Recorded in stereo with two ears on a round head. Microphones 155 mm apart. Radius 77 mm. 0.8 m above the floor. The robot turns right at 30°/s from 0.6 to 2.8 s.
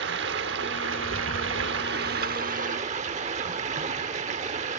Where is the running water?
105° right, 1.0 m; by 4.8 s 40° right, 1.0 m.